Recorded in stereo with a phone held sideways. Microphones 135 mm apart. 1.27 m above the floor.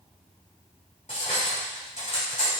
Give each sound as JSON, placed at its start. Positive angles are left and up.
{"t": 1.1, "sound": "cutlery clinking", "side_deg": 60, "distance_m": 3.0}